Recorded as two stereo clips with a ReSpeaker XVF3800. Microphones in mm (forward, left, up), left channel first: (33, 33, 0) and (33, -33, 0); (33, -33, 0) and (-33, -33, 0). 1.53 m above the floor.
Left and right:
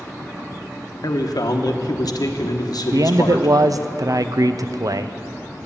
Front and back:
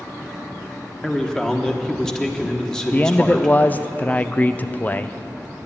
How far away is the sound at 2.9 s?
About 0.5 m.